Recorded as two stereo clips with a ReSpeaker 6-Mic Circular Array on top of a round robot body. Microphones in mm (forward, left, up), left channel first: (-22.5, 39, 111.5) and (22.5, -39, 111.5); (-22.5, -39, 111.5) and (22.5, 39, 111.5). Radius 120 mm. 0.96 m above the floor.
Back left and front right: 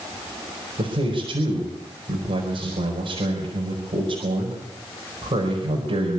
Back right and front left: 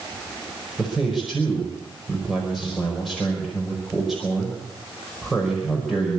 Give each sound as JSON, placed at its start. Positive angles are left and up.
{"t": 0.8, "sound": "a man speaking", "azimuth_deg": -30, "distance_m": 5.0}